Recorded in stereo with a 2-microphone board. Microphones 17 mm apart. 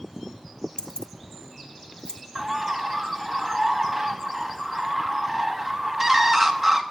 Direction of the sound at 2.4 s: 10° right (ahead or behind).